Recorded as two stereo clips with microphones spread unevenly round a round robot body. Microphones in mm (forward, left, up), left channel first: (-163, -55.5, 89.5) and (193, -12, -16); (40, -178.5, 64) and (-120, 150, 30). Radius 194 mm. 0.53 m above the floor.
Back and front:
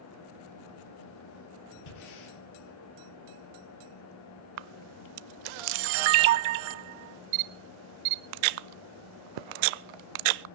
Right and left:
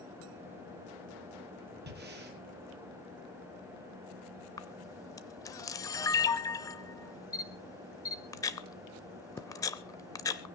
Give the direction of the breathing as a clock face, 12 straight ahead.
6 o'clock.